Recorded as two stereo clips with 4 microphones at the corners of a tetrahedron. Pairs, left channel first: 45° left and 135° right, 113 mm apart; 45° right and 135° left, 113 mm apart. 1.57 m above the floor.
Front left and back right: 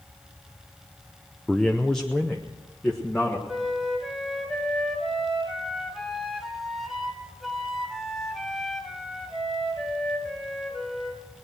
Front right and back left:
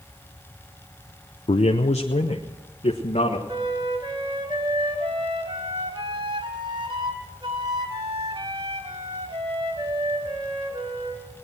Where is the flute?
135° left, 1.9 m.